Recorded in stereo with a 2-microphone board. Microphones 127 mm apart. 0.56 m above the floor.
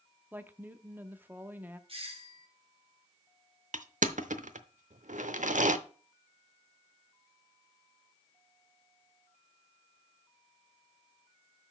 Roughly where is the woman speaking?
Centre.